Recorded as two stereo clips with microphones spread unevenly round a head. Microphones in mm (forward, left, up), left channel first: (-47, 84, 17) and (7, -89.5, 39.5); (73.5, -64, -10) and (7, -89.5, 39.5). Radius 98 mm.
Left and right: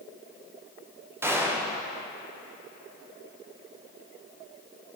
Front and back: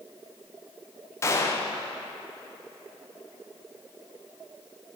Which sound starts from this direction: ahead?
A gunshot, at 1.2 s.